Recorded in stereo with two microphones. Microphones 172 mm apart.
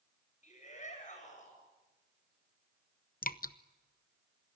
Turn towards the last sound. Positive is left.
turn(degrees=55)  # may be behind; listen again after turning